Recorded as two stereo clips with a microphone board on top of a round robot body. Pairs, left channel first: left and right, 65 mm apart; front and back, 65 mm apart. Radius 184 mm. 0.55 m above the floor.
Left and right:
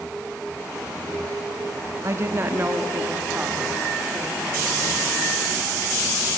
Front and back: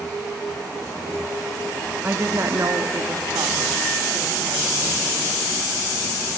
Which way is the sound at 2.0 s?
125° right.